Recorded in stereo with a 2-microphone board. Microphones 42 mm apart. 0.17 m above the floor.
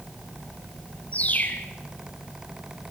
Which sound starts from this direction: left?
A bird, at 1.1 s.